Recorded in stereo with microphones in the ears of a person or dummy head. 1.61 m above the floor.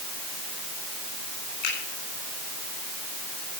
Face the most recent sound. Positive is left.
turn(degrees=60)  # may be behind; listen again after turning